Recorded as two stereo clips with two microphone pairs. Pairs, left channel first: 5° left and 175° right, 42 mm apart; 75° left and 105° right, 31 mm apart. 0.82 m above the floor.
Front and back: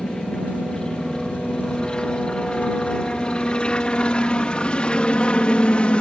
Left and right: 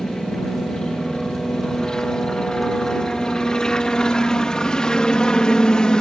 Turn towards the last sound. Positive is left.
turn(degrees=40)